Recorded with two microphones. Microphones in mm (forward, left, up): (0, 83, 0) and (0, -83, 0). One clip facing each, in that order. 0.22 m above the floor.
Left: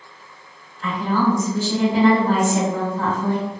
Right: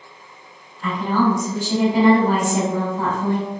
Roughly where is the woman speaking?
Centre.